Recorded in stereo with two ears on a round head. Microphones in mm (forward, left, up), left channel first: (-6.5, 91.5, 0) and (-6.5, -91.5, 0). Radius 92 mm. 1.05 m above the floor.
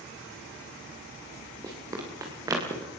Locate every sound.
1.6 s running footsteps: 20° right (ahead or behind), 10 m